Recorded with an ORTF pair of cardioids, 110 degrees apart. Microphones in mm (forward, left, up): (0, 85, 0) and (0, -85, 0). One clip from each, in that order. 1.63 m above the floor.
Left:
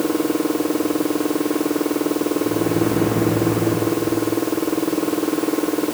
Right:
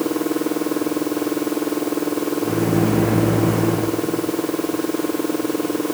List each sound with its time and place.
2.4 s a microwave: 60° right, 1.5 m